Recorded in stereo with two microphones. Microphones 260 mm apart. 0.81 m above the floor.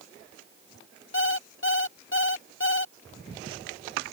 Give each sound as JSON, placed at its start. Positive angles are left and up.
{"t": 1.1, "sound": "an alarm clock", "side_deg": 50}